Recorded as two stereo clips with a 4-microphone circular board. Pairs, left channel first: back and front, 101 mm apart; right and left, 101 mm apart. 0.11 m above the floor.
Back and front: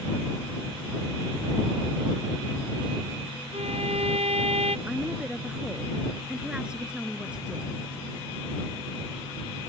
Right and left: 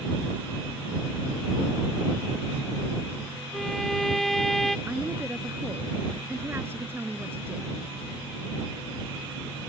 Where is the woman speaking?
65° left.